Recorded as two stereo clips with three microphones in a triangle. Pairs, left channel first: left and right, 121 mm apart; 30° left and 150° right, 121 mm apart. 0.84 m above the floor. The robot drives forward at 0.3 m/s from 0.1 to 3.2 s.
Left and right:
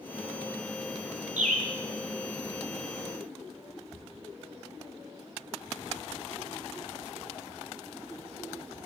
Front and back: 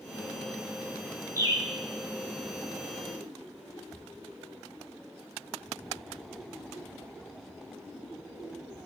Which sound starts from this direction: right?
A bird, at 1.4 s.